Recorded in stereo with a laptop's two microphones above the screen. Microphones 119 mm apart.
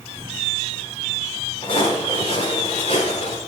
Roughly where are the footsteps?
Left.